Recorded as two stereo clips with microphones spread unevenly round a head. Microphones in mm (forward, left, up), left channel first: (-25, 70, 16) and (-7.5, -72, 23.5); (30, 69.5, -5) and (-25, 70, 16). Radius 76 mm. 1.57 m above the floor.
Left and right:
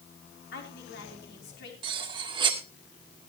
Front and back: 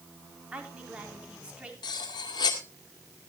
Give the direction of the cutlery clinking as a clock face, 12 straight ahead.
1 o'clock.